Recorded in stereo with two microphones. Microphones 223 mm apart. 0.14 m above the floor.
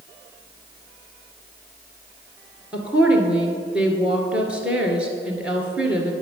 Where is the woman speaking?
5° right (ahead or behind), 1.7 m.